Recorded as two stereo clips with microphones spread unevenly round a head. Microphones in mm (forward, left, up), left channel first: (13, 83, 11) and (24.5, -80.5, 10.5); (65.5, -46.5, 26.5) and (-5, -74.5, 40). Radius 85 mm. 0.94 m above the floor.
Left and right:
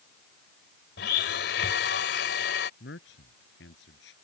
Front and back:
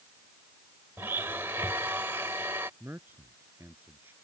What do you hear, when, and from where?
1.0 s a blender: 125° left
2.8 s a man speaking: 125° left